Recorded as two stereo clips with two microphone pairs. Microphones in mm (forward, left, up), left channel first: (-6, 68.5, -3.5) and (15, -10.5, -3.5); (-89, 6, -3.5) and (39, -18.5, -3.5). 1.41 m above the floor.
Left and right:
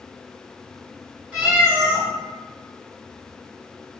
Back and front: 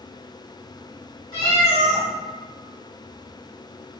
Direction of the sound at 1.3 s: 135° right.